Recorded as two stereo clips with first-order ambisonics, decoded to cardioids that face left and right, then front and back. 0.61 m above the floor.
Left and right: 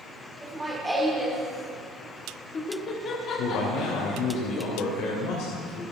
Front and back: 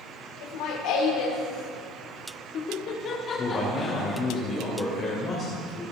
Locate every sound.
0.4 s laughter: 10° right, 2 m; by 4.4 s 80° left, 1.6 m
3.4 s a man speaking: 65° left, 2.5 m